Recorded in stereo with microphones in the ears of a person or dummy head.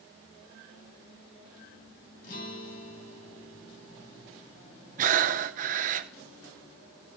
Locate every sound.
2.2 s a guitar: 50° left (ahead or behind), 3 m
5.0 s breathing: 40° right (ahead or behind), 0.8 m